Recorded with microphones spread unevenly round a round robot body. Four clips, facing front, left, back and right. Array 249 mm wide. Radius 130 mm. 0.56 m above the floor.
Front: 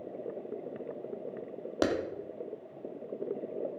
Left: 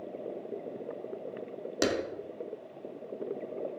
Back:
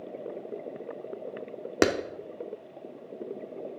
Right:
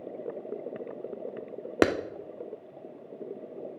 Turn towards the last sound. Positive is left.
turn(degrees=-135)